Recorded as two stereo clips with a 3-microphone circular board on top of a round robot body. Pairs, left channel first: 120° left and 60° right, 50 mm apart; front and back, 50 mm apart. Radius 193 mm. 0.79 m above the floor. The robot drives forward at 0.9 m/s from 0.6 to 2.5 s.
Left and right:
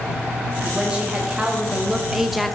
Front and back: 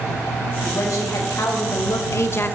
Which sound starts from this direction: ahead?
A woman speaking, at 0.6 s.